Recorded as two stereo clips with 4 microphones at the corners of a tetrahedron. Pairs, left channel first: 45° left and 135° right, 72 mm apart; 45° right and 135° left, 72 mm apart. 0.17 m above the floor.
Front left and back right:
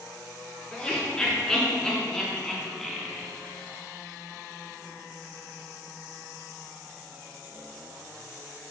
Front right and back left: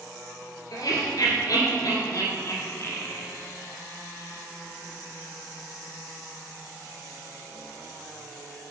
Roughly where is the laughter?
Ahead right.